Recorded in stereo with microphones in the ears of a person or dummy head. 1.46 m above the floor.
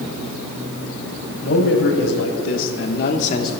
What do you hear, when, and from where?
1.4 s a man speaking: 70° left (ahead or behind), 3 m; by 3.5 s 25° left (ahead or behind), 1.1 m